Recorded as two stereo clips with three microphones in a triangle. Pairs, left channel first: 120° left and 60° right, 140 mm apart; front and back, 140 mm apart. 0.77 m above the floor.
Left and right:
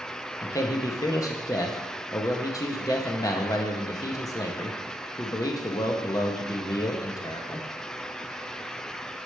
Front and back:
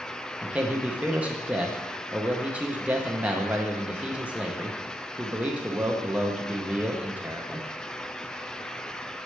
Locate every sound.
0.4 s a man speaking: 115° left, 0.6 m